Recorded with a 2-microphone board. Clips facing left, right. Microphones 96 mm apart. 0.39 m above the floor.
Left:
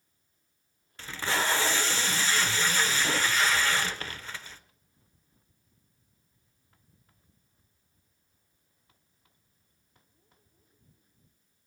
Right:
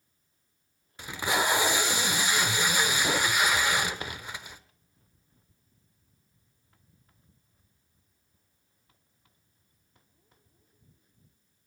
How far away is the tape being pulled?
About 0.7 m.